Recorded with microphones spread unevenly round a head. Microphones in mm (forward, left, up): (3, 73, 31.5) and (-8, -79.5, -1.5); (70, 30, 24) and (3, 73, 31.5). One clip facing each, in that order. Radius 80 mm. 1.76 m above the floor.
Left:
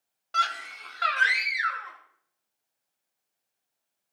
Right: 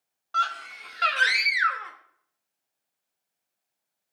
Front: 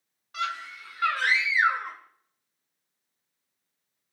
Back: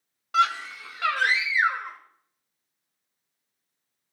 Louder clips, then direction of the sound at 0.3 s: Even, back 9 dB; 150° left.